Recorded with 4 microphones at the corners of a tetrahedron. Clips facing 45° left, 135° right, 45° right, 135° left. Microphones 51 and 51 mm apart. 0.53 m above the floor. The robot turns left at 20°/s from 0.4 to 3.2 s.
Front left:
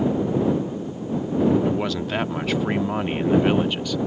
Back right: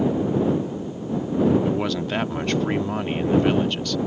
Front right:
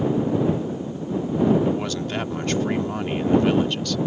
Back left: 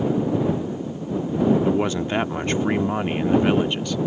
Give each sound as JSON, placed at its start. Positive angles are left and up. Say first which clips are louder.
{"t": 1.6, "sound": "a man speaking", "louder": "even, back left 3 dB", "azimuth_deg": 135}